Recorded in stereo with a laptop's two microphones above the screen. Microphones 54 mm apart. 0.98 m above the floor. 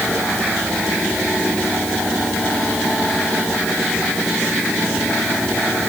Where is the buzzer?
I don't hear a buzzer.